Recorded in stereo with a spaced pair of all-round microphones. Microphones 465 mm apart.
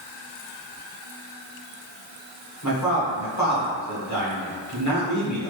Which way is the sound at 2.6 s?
40° left (ahead or behind).